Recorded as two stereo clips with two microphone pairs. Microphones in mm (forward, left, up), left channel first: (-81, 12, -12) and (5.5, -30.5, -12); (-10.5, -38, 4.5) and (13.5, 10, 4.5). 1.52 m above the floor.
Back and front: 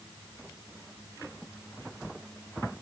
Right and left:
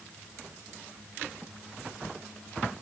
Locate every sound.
Only background noise.